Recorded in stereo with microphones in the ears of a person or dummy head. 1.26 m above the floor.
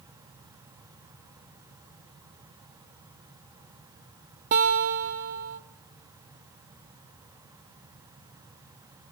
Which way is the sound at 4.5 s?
50° right (ahead or behind).